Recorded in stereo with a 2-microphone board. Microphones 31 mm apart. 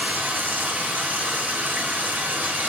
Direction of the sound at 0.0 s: 80° right.